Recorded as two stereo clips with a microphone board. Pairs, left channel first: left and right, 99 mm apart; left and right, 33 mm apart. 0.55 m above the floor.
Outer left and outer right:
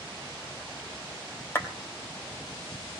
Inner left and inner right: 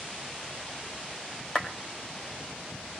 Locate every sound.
1.6 s a clap: 25° left (ahead or behind), 2.5 m